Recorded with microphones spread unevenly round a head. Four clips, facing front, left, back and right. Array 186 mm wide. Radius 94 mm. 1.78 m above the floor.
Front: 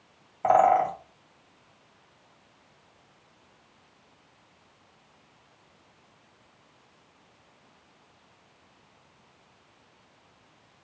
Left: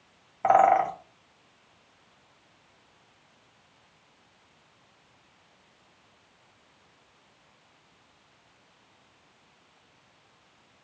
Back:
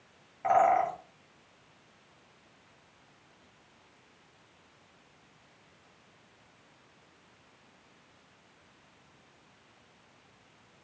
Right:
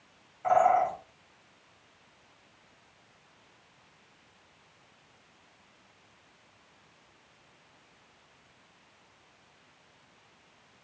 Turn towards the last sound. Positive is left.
turn(degrees=50)